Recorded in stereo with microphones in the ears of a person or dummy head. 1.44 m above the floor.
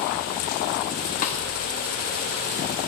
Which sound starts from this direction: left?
A snare drum, at 1.2 s.